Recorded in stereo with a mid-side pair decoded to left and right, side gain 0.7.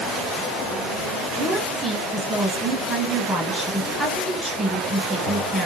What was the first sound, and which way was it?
A woman speaking, straight ahead.